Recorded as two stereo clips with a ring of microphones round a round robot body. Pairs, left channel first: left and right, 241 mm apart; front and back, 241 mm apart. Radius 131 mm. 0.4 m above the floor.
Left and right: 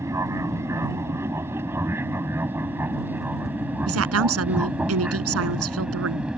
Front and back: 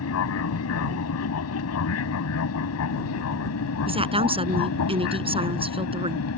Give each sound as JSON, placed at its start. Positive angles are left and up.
{"t": 0.0, "sound": "an aircraft", "azimuth_deg": -10}
{"t": 3.9, "sound": "a woman speaking", "azimuth_deg": -115}